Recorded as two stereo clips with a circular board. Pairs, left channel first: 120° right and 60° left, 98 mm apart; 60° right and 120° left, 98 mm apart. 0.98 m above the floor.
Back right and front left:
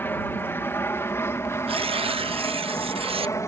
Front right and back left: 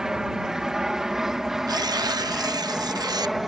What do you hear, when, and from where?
0.0 s an aircraft: 165° right; by 3.5 s 155° right
1.7 s tearing paper: 75° left